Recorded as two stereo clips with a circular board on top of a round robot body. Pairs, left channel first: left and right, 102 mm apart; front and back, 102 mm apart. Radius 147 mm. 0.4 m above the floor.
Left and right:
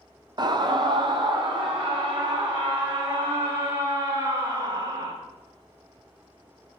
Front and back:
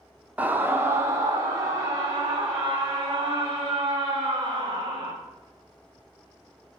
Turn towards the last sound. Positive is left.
turn(degrees=-135)